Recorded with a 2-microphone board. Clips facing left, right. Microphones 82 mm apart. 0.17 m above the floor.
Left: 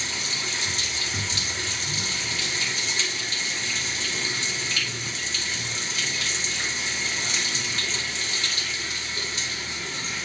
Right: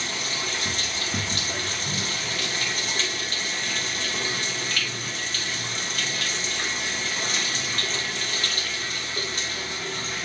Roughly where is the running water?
Right.